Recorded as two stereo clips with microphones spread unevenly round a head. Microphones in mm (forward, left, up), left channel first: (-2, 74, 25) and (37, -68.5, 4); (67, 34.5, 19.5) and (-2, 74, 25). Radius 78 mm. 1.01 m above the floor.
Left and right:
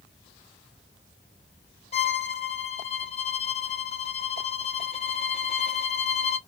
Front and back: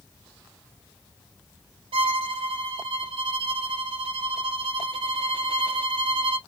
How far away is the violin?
About 0.7 m.